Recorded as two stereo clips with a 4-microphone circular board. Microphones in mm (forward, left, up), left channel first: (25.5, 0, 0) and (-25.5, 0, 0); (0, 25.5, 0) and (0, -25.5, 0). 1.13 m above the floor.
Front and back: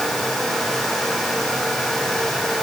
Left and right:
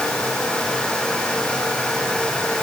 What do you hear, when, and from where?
Only background noise.